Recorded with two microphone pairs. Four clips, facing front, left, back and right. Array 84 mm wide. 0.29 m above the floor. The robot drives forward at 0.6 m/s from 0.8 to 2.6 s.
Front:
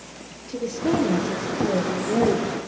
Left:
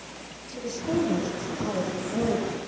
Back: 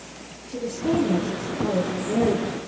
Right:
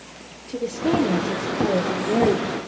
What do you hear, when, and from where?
0.5 s a woman speaking: 70° right, 8 m; by 2.7 s 80° right, 7.5 m